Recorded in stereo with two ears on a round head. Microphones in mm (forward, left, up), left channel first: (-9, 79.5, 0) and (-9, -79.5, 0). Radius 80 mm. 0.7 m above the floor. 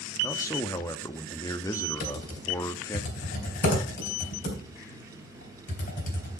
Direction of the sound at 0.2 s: 20° left (ahead or behind).